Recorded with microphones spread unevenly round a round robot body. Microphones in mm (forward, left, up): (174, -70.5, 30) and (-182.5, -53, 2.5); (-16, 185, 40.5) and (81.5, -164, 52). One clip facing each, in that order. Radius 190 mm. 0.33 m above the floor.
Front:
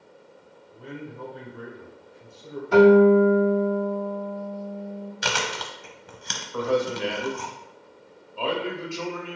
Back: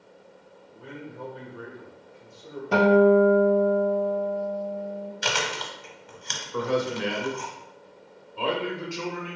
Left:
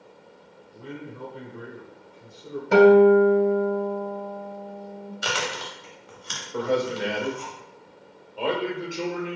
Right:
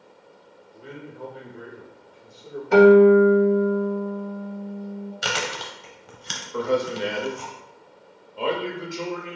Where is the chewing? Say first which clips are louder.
Front 1 dB, left 3 dB; 45° right, 0.9 m.